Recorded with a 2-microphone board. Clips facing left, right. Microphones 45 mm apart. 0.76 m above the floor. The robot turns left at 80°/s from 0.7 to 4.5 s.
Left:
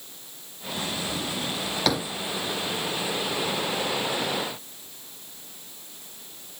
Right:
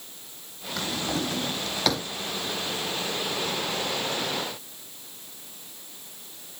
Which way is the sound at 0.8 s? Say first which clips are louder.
Right 2 dB; 85° right.